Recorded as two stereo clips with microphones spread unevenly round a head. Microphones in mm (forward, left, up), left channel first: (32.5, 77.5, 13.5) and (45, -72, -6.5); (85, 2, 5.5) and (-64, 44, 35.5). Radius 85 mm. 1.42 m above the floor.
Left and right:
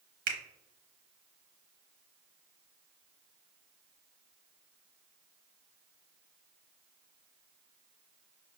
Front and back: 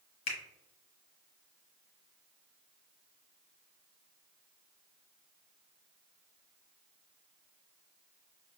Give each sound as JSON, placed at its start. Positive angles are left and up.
{"t": 0.3, "sound": "a finger snap", "azimuth_deg": -75, "distance_m": 0.9}